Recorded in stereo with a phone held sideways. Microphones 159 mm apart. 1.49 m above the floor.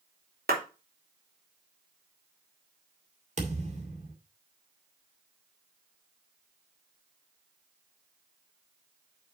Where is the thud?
45° right (ahead or behind), 2.5 m.